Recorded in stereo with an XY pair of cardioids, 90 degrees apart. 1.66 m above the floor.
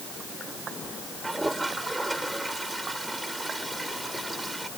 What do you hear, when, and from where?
1.2 s a toilet flushing: 10° right